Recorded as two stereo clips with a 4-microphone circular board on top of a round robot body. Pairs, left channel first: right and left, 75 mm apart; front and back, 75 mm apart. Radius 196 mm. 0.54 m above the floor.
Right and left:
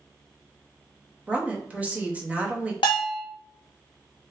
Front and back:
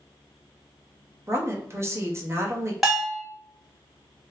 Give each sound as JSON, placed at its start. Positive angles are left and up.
{"t": 1.3, "sound": "a woman speaking", "azimuth_deg": 155, "distance_m": 1.0}
{"t": 2.8, "sound": "a bell", "azimuth_deg": -90, "distance_m": 0.6}